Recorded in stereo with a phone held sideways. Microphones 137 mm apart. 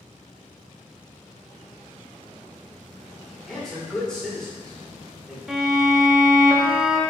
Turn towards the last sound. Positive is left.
turn(degrees=-5)  # may be behind; listen again after turning